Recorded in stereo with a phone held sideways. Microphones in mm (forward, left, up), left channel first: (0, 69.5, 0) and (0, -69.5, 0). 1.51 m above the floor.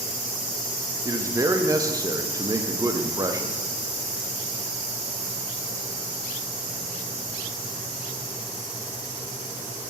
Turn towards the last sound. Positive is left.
turn(degrees=-25)  # may be behind; listen again after turning